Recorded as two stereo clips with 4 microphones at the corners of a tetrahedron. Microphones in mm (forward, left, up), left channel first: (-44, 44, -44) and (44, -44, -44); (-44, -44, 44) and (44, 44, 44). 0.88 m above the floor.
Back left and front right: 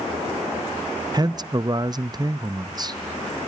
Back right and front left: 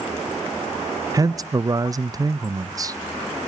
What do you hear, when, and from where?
1.1 s a man speaking: 5° right, 0.5 m